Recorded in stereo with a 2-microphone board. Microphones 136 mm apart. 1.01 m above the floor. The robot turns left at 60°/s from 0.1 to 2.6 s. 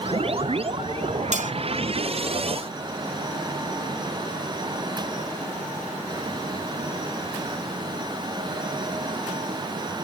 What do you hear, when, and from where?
1.3 s cutlery clinking: 65° right (ahead or behind), 0.8 m; by 1.5 s 75° right (ahead or behind), 0.8 m